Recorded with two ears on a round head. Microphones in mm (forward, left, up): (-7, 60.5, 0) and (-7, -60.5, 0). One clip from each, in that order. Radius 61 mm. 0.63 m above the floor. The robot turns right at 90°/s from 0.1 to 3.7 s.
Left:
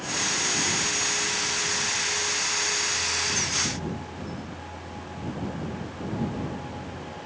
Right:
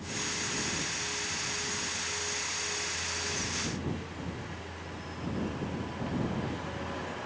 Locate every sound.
Only background noise.